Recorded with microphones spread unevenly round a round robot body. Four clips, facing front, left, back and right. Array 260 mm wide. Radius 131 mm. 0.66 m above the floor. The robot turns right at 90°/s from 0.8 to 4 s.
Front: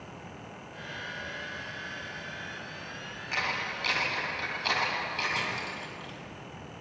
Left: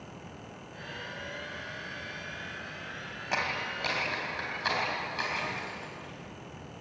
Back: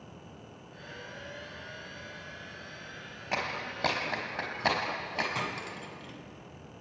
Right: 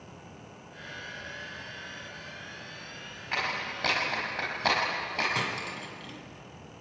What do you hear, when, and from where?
3.3 s a clap: 145° left, 4 m; by 5.2 s 155° right, 4 m
5.3 s cutlery clinking: 110° right, 3.5 m